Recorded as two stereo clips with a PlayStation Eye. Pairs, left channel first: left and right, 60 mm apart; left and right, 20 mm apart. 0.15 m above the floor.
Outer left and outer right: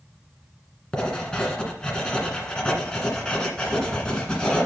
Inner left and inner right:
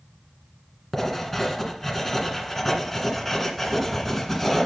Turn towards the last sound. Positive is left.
turn(degrees=10)  # may be behind; listen again after turning